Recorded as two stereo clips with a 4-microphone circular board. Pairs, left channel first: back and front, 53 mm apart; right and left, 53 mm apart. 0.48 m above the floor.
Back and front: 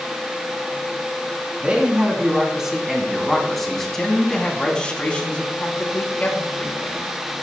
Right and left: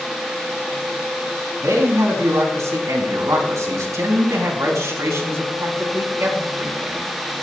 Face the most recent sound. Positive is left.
turn(degrees=130)